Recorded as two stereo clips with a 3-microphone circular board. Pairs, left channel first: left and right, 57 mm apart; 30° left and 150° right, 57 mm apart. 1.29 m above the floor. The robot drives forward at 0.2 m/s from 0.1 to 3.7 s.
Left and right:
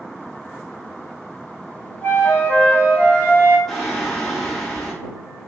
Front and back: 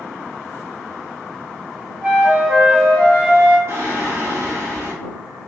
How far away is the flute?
About 0.9 m.